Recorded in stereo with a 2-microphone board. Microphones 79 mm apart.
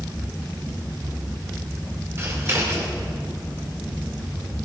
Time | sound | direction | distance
2.2 | scissors | 35° right (ahead or behind) | 3 m